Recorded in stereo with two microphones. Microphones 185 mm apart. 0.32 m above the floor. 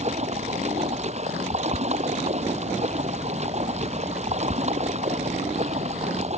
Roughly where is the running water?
Right.